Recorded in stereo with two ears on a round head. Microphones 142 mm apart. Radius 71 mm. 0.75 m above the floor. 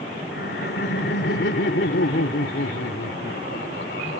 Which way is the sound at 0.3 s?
70° left (ahead or behind).